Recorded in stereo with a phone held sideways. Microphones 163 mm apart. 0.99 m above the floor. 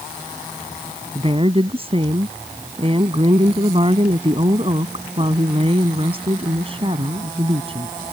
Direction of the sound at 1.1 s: 35° right (ahead or behind).